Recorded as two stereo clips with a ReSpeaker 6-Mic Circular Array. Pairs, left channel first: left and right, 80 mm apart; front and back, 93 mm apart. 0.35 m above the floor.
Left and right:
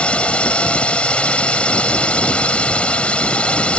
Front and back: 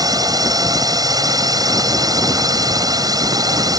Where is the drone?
160° left.